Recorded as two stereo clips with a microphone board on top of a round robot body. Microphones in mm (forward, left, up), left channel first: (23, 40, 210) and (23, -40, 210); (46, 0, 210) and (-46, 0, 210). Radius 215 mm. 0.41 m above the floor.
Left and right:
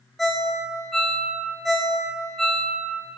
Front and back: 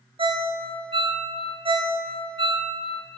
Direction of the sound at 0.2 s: Straight behind.